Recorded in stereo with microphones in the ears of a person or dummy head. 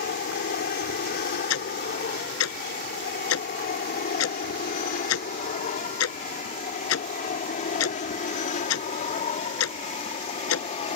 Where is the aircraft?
45° left (ahead or behind); by 11.0 s 30° left (ahead or behind).